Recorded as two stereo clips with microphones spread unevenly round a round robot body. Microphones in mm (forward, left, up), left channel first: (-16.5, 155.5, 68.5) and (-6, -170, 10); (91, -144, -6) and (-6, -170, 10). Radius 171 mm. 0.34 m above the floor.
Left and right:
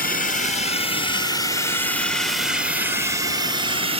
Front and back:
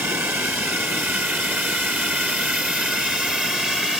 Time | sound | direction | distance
0.0 | a drone | 140° left | ?